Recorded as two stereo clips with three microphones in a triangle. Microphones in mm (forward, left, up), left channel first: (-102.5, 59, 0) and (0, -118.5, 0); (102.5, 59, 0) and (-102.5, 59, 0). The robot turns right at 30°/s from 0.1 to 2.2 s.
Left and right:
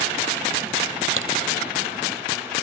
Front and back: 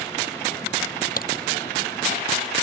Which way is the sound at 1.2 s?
45° right.